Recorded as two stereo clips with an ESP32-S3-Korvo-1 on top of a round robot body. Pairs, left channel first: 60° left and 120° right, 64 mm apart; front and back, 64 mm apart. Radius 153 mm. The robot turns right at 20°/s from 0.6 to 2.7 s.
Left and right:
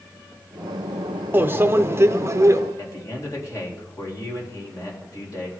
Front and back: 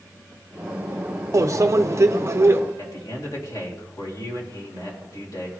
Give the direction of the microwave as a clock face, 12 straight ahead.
6 o'clock.